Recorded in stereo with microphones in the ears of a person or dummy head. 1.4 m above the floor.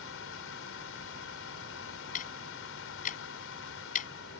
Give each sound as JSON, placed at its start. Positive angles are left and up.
{"t": 0.0, "sound": "a fan", "side_deg": 80}
{"t": 2.1, "sound": "ticking", "side_deg": 45}